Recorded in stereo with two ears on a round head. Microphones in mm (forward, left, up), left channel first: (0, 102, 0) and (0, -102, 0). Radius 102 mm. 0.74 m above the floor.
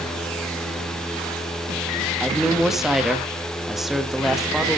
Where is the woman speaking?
Centre (ahead or behind), 1.3 m.